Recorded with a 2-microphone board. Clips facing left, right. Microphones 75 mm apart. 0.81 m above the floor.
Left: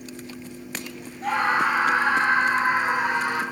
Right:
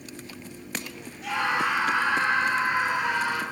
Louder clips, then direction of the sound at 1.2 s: Left 4 dB; 40° left (ahead or behind).